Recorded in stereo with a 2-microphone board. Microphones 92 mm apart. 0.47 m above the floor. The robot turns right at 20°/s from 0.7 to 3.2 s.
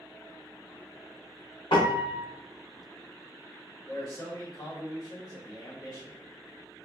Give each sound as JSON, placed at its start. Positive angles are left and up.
{"t": 1.7, "sound": "a piano", "side_deg": 70, "distance_m": 0.7}
{"t": 3.9, "sound": "a man speaking", "side_deg": 50, "distance_m": 1.2}